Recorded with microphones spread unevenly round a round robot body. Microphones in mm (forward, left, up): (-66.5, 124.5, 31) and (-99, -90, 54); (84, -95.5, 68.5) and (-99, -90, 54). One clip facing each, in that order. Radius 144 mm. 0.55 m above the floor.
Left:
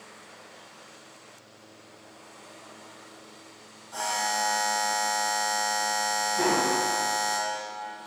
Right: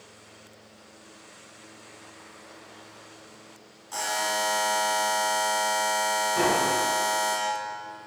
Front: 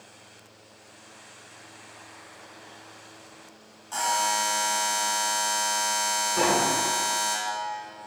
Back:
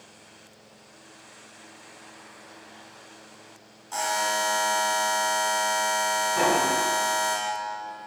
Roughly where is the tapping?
Right.